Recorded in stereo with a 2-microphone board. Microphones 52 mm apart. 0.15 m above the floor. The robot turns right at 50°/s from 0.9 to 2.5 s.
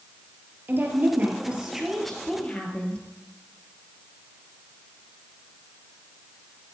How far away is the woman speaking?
About 3 m.